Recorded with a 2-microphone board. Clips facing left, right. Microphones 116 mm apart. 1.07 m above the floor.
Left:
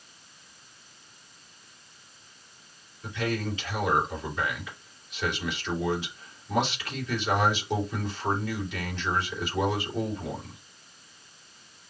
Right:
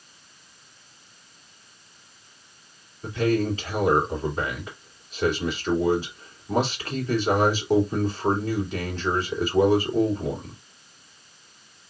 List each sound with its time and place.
3.0 s a man speaking: 35° right (ahead or behind), 3 m